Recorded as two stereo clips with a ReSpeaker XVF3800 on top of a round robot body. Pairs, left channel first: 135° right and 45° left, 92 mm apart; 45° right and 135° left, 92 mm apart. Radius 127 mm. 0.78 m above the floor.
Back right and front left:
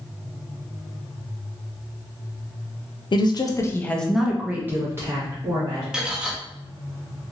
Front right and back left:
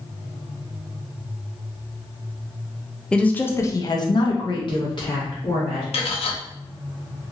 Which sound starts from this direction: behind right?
A woman speaking, at 3.1 s.